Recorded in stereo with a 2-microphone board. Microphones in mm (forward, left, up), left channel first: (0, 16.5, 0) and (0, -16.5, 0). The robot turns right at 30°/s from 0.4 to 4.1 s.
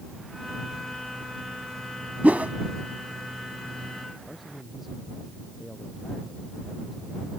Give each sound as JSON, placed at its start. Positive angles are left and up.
{"t": 2.2, "sound": "a whoosh", "side_deg": -60}
{"t": 4.3, "sound": "a man speaking", "side_deg": 0}